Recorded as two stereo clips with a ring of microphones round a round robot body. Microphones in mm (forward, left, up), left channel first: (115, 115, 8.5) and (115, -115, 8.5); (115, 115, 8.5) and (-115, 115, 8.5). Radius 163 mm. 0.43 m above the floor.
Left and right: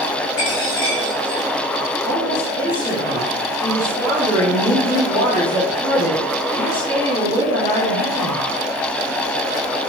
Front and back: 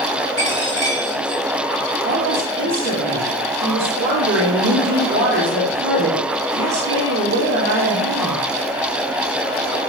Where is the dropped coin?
75° left, 4 m.